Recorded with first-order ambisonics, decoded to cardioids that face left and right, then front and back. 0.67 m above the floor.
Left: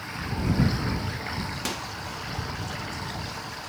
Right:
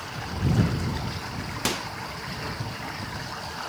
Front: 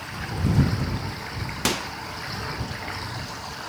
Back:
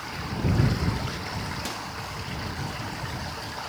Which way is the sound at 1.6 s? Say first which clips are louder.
Right 6 dB, front 8 dB; 25° right.